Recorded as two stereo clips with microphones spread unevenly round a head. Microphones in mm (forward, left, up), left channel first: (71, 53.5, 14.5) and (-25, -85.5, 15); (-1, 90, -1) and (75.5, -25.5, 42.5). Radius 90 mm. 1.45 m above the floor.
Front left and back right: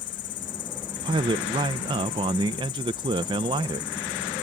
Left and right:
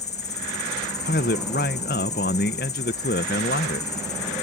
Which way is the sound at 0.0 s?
85° left.